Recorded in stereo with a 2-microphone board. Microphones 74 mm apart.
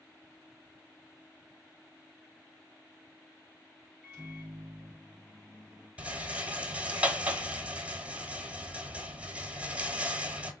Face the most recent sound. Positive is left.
turn(degrees=-20)  # may be behind; listen again after turning